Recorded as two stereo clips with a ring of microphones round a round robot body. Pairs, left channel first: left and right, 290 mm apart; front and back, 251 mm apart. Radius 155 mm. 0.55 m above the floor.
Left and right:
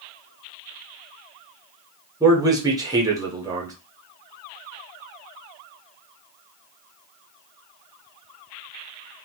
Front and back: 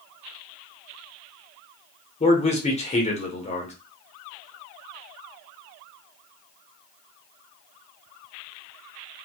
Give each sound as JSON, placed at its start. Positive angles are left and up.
{"t": 2.2, "sound": "a man speaking", "azimuth_deg": -25, "distance_m": 1.0}